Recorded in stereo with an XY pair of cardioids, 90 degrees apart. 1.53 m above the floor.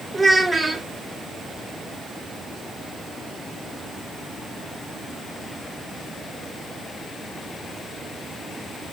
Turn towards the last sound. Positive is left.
turn(degrees=-25)